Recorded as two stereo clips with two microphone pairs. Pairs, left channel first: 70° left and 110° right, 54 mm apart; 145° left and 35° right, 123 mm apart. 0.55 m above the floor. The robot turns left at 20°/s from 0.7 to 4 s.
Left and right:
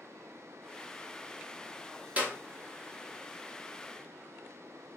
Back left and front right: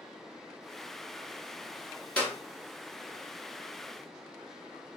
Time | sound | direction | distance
2.2 | a clap | 140° right | 1.0 m